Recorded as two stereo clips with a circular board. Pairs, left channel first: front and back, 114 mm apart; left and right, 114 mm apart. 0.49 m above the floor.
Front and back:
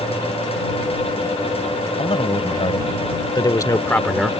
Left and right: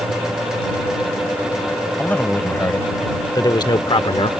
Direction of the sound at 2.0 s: 15° left.